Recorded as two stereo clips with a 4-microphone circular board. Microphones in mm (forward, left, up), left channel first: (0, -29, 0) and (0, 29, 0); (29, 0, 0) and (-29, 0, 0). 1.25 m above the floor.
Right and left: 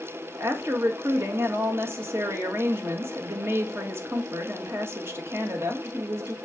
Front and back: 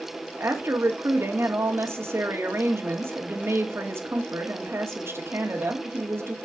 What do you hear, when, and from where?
0.4 s a woman speaking: 135° left, 1.5 m